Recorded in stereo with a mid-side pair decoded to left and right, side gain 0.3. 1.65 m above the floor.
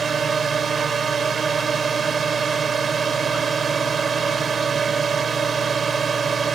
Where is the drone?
60° right.